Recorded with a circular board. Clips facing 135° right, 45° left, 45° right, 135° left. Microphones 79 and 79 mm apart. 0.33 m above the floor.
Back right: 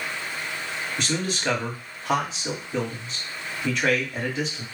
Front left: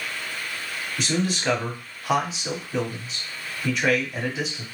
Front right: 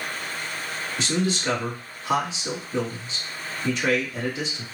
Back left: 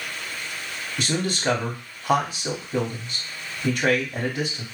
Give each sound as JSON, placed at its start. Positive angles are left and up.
{"t": 1.0, "sound": "a man speaking", "azimuth_deg": 130, "distance_m": 2.0}